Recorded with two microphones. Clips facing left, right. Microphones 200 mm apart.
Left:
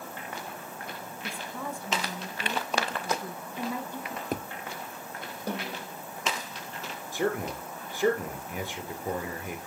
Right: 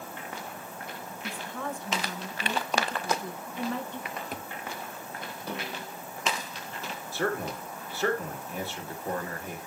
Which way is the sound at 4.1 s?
45° left (ahead or behind).